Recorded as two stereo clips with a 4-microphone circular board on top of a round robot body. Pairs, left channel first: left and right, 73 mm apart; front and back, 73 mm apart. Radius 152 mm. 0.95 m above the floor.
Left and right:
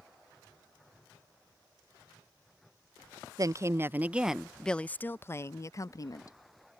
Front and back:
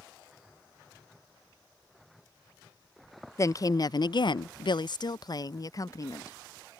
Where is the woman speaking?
50° right; by 6.4 s 50° left.